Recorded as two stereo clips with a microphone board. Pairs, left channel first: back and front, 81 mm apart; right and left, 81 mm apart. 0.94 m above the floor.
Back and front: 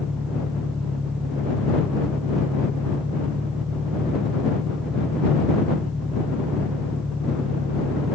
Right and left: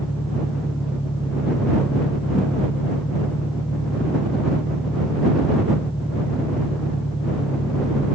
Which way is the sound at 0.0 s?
85° right.